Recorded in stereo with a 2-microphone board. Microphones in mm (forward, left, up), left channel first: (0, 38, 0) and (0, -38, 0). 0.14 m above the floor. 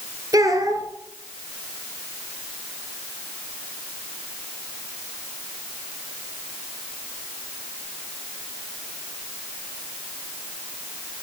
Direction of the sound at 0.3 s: 55° right (ahead or behind).